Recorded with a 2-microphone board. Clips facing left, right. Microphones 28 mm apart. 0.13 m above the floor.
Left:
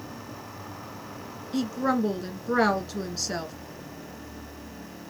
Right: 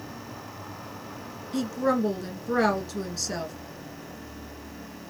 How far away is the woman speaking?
About 1.2 m.